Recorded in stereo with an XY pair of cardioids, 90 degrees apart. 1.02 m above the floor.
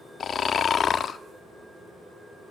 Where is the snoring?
60° left, 0.9 m.